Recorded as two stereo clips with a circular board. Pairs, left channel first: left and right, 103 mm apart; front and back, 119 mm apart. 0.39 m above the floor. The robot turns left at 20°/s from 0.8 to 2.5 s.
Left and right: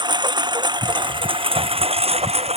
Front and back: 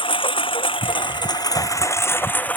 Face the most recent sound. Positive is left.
turn(degrees=-80)